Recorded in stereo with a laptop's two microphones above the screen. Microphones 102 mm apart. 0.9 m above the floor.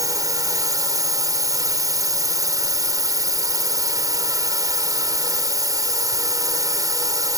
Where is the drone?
40° right (ahead or behind).